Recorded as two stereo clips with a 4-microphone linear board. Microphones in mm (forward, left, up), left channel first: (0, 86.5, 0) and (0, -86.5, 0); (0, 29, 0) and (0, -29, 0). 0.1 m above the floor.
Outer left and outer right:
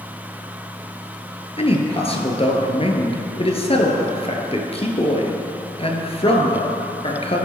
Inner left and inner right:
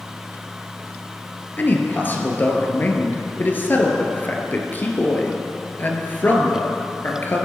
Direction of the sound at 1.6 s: 35° left (ahead or behind).